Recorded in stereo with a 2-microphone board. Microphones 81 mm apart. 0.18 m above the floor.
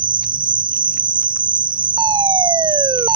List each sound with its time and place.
0.0 s an insect: 85° right
2.0 s a fire alarm: 65° right (ahead or behind)